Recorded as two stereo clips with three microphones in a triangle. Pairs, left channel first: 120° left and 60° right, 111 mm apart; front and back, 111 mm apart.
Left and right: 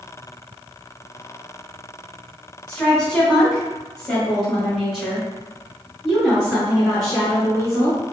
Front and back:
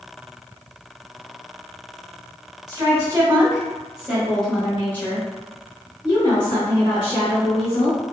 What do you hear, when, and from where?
2.7 s a woman speaking: 165° right, 1.7 m; by 8.0 s 20° left, 2.5 m